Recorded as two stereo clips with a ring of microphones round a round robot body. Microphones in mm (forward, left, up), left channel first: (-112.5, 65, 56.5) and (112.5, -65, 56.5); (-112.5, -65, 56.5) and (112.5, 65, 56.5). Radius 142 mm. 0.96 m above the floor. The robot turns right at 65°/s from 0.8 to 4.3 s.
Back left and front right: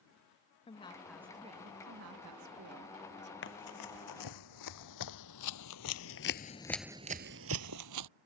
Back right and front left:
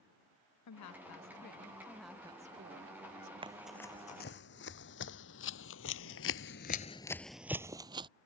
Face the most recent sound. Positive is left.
turn(degrees=-40)